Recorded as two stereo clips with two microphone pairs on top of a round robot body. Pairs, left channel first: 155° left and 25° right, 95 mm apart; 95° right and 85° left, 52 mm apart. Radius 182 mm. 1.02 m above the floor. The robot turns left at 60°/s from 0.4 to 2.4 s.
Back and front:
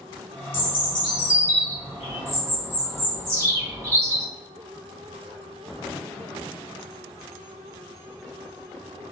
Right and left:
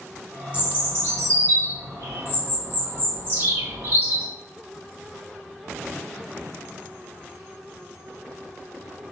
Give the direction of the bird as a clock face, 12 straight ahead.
7 o'clock.